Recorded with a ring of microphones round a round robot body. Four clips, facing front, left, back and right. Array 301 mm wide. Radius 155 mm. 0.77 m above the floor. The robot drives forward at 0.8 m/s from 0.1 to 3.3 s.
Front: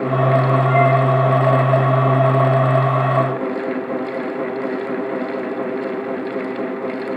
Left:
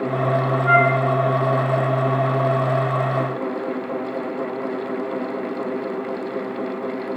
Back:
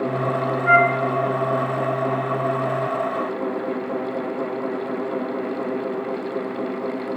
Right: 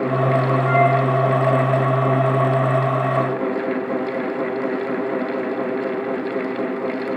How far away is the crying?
No crying in this recording.